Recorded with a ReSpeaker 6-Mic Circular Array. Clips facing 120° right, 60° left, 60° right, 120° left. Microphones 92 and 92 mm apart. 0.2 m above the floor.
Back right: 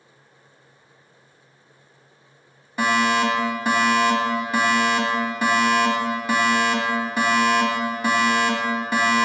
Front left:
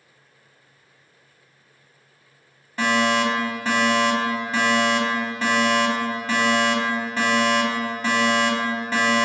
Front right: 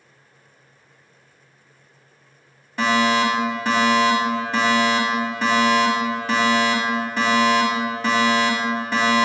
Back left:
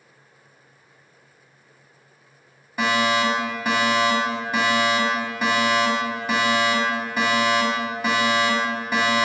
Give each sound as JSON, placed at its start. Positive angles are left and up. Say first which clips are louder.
{"t": 2.8, "sound": "a fire alarm", "louder": "back right 1 dB, front right 2 dB", "azimuth_deg": -170, "distance_m": 2.0}